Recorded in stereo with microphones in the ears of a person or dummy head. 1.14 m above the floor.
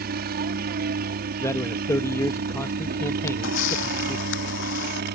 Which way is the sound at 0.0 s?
45° right (ahead or behind).